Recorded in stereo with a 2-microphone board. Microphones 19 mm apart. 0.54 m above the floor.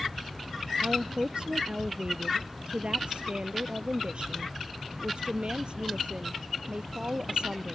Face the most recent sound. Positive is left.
turn(degrees=-60)  # may be behind; listen again after turning